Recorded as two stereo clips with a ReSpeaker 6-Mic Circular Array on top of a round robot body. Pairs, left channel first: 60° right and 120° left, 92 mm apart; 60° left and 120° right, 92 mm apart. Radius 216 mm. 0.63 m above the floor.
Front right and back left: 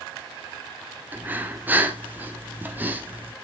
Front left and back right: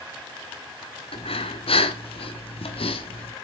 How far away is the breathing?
About 1.1 m.